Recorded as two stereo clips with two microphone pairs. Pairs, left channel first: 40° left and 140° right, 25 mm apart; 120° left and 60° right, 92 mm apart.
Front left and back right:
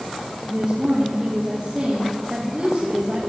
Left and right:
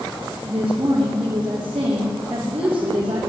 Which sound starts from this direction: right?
A woman speaking, at 0.4 s.